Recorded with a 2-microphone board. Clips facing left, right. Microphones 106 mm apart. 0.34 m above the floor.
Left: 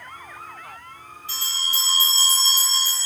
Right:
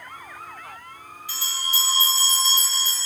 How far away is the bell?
About 1.2 m.